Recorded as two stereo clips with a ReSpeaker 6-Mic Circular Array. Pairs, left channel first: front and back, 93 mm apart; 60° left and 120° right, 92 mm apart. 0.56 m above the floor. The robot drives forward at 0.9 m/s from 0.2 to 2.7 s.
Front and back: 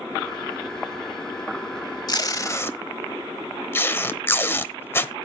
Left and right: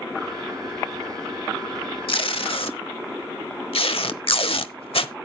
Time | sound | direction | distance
2.1 | tape being pulled | 40° left | 1.3 m